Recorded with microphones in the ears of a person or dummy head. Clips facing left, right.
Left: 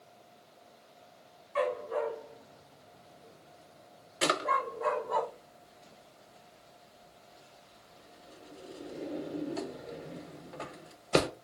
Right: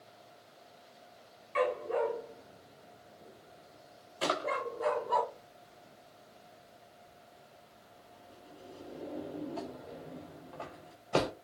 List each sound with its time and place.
1.6 s a dog barking: 35° right (ahead or behind), 1.0 m; by 5.2 s 55° right (ahead or behind), 2.5 m
4.2 s a drawer: 25° left (ahead or behind), 0.6 m